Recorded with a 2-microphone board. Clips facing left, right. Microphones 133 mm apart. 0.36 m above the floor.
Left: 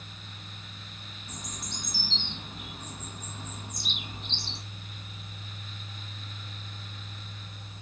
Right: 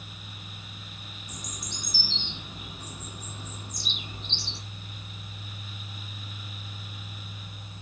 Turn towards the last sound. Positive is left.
turn(degrees=60)  # may be behind; listen again after turning